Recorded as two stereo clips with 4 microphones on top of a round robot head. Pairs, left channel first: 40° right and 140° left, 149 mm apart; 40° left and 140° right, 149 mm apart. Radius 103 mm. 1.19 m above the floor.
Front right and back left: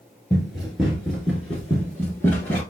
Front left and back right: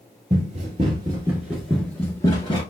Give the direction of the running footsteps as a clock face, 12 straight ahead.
4 o'clock.